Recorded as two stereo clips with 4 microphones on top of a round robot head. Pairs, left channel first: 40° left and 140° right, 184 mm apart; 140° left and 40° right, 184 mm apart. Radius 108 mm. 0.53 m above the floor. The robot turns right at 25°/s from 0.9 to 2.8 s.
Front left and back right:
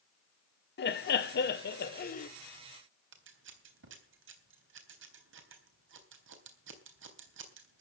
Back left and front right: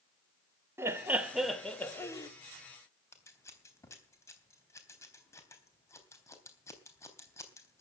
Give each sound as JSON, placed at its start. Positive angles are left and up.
{"t": 0.8, "sound": "laughter", "azimuth_deg": 35, "distance_m": 2.0}
{"t": 3.1, "sound": "scissors", "azimuth_deg": -145, "distance_m": 3.5}